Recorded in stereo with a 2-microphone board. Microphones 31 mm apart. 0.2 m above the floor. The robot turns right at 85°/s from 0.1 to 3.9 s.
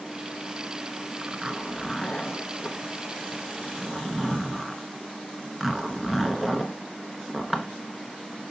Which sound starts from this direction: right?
A zipper, at 1.2 s.